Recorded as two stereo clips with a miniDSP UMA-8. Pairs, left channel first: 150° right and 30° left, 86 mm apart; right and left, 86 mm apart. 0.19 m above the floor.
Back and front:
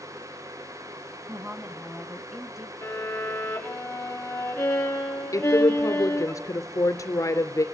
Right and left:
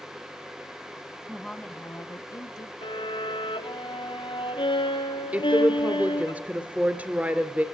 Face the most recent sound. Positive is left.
turn(degrees=160)